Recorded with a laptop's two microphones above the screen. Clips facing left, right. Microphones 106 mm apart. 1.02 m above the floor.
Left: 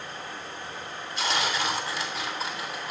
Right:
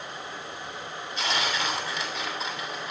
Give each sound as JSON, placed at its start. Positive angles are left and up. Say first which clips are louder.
{"t": 0.0, "sound": "running water", "louder": "even", "side_deg": -15, "distance_m": 4.0}
{"t": 1.2, "sound": "tearing paper", "louder": "left 1 dB", "side_deg": 0, "distance_m": 7.5}